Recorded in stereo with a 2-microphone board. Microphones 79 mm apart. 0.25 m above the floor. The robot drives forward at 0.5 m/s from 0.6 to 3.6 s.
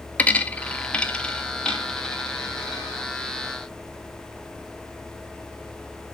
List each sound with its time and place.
0.2 s a dropped coin: 20° left (ahead or behind), 0.7 m; by 2.9 s 5° left (ahead or behind), 1.8 m